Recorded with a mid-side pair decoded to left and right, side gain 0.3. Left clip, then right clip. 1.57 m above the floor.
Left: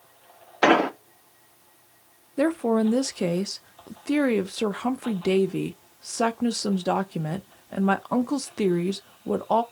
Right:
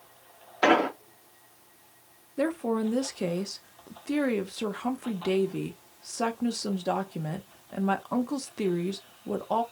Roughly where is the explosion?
Ahead left.